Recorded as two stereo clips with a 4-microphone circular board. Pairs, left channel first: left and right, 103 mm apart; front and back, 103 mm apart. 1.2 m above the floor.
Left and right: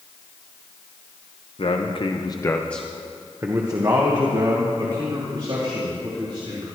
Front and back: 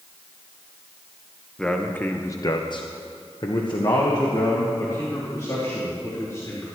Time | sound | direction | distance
1.6 | a man speaking | 85° left | 1.2 m